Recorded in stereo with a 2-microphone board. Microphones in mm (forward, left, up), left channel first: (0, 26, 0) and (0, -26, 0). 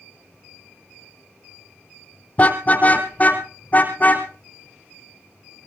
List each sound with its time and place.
2.4 s a car horn: 30° left (ahead or behind), 2.5 m; by 4.3 s 35° left (ahead or behind), 5 m